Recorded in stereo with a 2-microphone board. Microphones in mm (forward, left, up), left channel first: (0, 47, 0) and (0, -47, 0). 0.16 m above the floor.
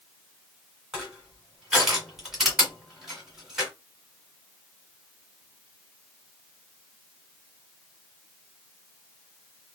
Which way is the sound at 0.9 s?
5° right (ahead or behind).